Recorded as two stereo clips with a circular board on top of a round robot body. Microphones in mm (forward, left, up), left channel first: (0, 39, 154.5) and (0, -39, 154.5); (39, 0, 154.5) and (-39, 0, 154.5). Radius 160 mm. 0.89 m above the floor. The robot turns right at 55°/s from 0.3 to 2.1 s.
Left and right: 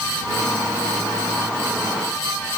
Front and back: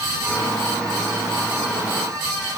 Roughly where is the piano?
No piano in this recording.